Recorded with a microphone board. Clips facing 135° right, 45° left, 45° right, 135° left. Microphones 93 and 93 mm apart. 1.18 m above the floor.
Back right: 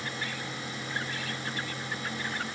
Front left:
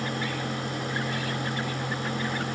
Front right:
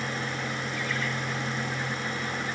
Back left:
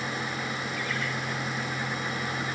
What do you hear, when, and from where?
Only background noise.